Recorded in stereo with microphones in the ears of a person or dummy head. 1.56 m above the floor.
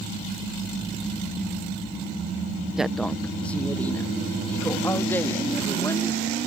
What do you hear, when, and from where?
2.8 s a woman speaking: 5° right (ahead or behind); by 6.4 s 15° left (ahead or behind)